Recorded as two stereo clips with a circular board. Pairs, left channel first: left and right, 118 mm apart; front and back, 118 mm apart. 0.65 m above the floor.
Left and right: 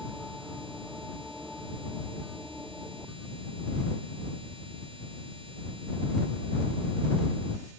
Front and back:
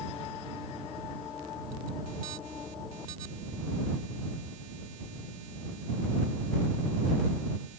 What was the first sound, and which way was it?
Only background noise.